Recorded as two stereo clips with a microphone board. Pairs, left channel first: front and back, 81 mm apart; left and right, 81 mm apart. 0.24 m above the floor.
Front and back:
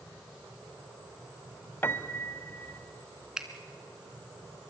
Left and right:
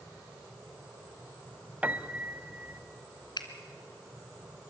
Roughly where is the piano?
Ahead right.